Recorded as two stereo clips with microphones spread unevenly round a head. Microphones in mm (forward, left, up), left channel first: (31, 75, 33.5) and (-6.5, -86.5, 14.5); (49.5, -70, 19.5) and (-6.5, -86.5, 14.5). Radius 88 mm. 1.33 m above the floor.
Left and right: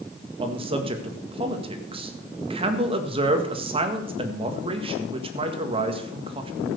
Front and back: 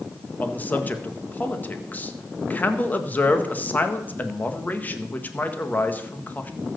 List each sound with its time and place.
0.4 s a man speaking: 45° right, 1.8 m